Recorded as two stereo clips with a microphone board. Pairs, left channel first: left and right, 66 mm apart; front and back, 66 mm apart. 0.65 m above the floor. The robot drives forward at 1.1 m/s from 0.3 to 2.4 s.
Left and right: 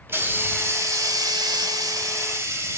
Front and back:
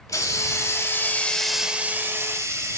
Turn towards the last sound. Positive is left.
turn(degrees=-135)